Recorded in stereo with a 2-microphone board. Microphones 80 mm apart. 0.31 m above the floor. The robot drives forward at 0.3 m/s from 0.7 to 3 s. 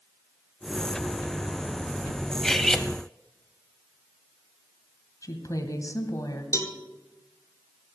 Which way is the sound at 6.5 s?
45° left (ahead or behind).